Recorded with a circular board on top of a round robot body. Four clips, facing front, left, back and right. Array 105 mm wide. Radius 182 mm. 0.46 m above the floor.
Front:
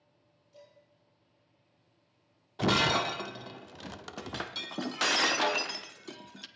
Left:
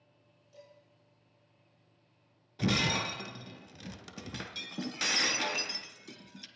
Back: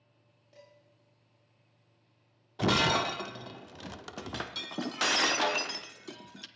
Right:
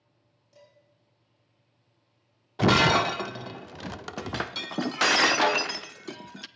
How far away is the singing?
I don't hear singing.